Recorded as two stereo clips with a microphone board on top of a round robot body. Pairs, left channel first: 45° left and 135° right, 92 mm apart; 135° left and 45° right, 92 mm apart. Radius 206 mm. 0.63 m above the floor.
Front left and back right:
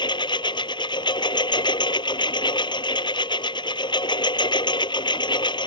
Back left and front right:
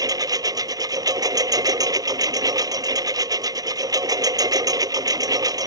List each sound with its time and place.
0.0 s a lawn mower: 5° left